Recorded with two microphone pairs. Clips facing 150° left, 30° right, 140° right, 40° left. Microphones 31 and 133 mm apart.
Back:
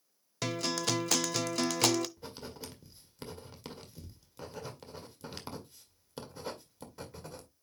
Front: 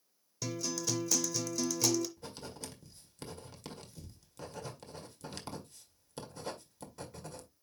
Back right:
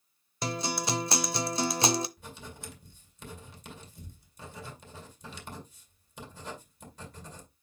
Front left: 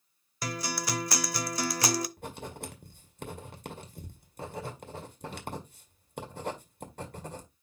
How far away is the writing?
About 1.9 m.